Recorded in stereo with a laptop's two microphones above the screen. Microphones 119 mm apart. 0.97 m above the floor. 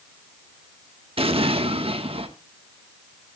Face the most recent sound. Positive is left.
turn(degrees=-55)  # may be behind; listen again after turning